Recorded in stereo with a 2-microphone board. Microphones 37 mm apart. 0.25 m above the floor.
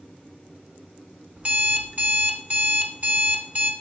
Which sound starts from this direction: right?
An alarm clock, at 1.4 s.